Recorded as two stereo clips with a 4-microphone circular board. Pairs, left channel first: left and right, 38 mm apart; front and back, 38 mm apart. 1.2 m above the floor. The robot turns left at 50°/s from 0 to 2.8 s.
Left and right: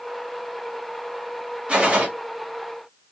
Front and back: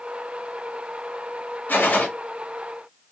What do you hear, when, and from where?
1.7 s a gunshot: 30° right, 1.5 m; by 2.1 s 50° right, 1.5 m